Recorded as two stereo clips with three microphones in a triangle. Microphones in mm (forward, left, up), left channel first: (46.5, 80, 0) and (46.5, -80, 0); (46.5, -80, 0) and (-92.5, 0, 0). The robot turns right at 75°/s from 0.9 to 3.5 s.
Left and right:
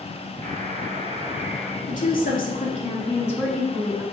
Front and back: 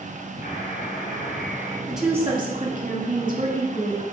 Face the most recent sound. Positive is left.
turn(degrees=180)